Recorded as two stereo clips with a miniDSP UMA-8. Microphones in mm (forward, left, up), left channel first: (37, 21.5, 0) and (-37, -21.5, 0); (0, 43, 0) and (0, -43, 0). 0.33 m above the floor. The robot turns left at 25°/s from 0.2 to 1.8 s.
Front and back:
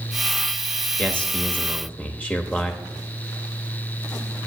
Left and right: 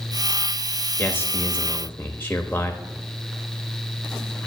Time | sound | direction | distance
1.0 | a man speaking | 95° left | 0.9 m